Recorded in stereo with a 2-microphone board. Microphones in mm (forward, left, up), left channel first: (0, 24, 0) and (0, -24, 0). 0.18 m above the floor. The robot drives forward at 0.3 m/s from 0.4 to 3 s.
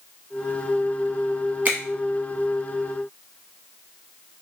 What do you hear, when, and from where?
1.6 s a finger snap: 35° right (ahead or behind), 1.0 m